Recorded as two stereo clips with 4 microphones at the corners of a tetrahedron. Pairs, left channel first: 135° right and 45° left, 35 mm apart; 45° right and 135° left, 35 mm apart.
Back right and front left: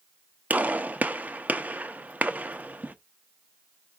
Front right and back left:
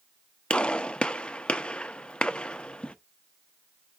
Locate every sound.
0.5 s a gunshot: 10° left, 0.5 m